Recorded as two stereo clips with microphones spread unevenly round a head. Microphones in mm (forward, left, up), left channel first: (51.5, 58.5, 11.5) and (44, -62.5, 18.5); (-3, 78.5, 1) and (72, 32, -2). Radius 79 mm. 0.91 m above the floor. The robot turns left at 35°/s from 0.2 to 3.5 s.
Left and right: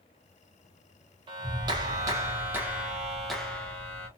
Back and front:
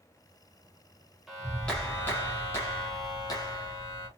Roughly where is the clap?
Behind right.